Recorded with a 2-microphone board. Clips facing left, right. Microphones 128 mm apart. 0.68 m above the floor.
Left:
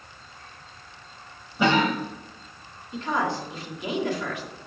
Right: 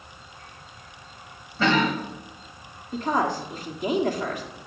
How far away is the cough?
About 3.5 m.